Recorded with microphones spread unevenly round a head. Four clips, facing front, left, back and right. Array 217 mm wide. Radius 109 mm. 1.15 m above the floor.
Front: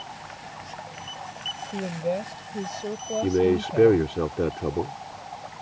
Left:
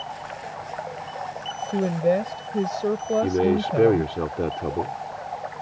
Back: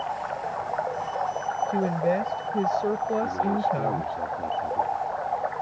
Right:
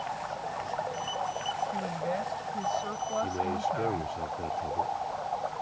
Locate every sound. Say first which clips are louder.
0.0 s running water: even, back 11 dB; 170° left
1.7 s a woman speaking: left 10 dB, back 2 dB; 130° left
3.2 s a man speaking: left 9 dB, front 3 dB; 40° left